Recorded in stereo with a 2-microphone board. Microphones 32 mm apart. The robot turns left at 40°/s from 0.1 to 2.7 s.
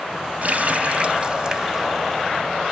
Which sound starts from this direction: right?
A running tap, at 0.4 s.